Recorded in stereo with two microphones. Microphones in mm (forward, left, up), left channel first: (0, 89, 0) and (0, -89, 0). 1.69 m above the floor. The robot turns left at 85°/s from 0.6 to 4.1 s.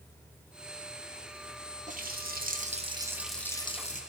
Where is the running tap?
55° right, 1.0 m; by 4.0 s 120° left, 1.0 m.